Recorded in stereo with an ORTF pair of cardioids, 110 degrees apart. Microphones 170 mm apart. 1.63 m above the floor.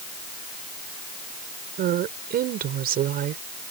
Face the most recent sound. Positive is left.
turn(degrees=-65)